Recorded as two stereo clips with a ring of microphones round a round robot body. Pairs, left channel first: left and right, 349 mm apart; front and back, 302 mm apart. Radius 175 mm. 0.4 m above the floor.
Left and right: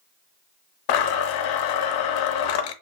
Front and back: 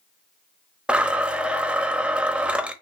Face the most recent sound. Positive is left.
turn(degrees=95)